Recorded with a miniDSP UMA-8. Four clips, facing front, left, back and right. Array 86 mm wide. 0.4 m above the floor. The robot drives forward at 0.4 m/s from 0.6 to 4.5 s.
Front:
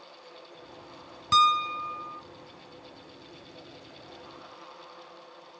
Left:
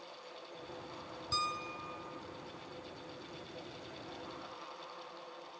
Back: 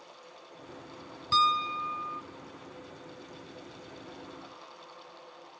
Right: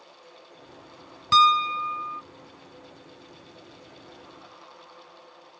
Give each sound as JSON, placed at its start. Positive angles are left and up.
{"t": 1.3, "sound": "a piano", "azimuth_deg": -75}